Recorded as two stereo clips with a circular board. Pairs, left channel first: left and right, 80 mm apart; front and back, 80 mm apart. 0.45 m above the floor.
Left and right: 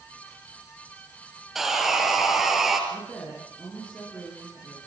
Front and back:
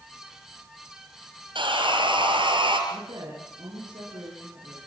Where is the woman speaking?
175° left, 8 m.